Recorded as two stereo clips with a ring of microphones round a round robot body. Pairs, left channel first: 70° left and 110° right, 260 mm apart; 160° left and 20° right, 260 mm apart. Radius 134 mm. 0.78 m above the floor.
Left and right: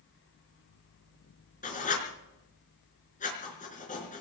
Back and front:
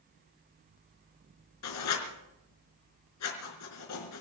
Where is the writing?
130° left, 4 m.